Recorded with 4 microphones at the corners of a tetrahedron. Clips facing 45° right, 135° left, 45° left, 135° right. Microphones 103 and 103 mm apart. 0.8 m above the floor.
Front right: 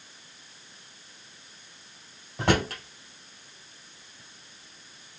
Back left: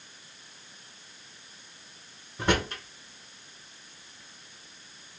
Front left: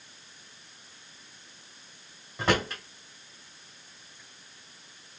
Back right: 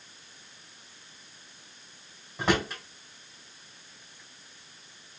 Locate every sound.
2.4 s a drawer: 45° right, 2.5 m